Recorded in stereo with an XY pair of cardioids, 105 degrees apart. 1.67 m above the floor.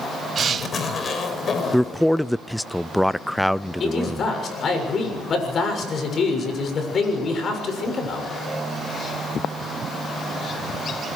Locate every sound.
0.4 s a zipper: 40° left, 4.5 m
1.7 s a man speaking: straight ahead, 0.5 m
3.8 s a man speaking: 50° left, 7 m